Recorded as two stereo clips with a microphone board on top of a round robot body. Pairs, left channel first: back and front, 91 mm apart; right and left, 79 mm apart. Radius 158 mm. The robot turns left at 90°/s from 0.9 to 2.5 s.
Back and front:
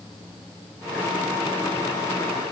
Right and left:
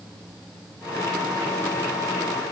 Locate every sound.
Only background noise.